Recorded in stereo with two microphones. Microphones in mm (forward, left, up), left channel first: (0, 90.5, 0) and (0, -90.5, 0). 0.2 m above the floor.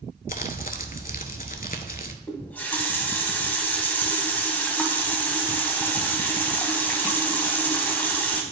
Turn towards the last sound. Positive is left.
turn(degrees=10)  # may be behind; listen again after turning